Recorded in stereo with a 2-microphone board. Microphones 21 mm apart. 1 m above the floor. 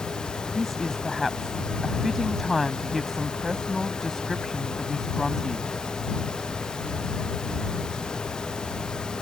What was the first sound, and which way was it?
A woman speaking, 5° left (ahead or behind).